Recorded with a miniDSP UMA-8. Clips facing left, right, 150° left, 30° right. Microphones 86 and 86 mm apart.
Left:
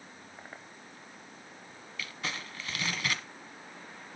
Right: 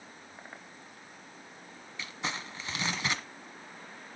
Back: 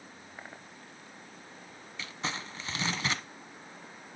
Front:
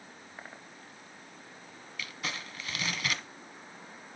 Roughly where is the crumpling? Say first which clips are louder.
Right 2 dB, back 2 dB; behind right.